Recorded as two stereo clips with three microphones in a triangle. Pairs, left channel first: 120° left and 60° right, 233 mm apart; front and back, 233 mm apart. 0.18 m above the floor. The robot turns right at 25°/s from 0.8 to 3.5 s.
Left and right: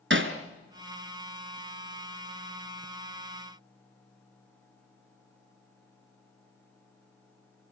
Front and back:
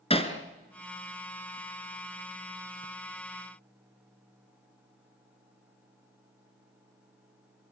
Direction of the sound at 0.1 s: 60° right.